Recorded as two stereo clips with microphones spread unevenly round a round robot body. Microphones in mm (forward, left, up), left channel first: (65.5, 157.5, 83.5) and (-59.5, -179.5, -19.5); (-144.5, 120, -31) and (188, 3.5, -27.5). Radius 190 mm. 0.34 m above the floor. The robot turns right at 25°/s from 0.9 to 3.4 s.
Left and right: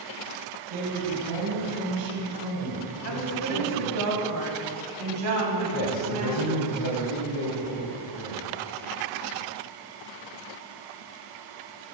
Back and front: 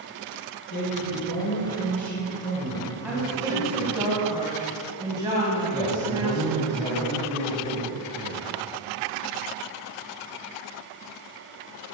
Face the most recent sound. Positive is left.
turn(degrees=95)